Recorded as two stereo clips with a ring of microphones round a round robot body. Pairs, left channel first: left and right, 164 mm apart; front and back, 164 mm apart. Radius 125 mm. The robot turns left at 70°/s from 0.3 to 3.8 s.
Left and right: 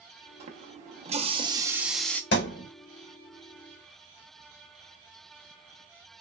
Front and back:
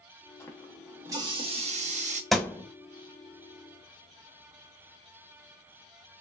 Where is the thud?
90° left, 0.7 m; by 2.7 s 65° left, 0.7 m.